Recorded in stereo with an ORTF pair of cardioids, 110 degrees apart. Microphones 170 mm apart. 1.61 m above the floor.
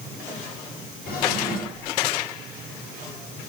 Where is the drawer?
60° left, 3.5 m.